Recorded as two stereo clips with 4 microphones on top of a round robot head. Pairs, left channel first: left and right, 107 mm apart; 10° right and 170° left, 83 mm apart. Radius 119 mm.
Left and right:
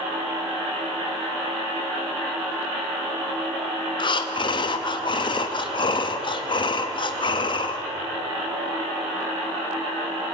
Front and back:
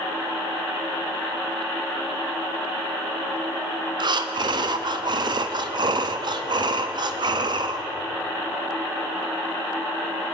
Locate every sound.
4.0 s breathing: 135° left, 0.7 m